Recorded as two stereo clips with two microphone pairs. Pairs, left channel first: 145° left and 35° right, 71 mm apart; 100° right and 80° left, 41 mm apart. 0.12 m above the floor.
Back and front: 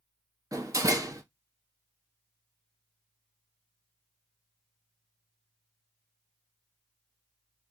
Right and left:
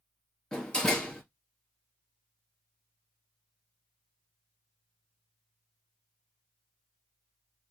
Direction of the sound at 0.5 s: 35° right.